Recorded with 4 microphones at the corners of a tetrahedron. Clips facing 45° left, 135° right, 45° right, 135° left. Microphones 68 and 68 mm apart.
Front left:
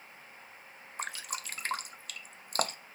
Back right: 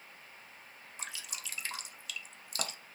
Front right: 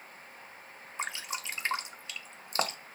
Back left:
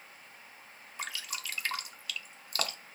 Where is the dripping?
15° left, 0.6 m.